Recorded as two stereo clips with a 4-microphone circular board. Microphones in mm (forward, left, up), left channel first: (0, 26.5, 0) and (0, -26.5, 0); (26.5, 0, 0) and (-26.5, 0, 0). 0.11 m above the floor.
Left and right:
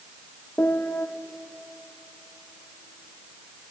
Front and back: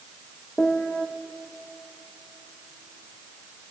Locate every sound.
0.6 s a piano: 60° left, 1.7 m